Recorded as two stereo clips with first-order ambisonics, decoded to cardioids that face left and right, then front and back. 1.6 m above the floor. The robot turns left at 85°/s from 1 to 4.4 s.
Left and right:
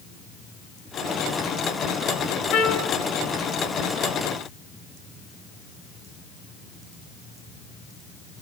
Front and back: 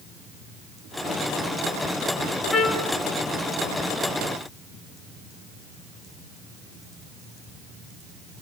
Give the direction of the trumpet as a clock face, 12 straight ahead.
9 o'clock.